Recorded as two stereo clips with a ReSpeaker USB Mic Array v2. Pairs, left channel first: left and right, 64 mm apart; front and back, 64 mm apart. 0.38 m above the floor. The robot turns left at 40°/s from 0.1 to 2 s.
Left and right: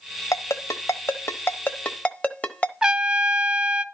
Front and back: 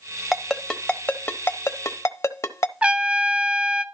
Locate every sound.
0.3 s a ringtone: 95° left, 0.9 m; by 2.7 s 25° left, 0.9 m
2.8 s a trumpet: 150° right, 0.8 m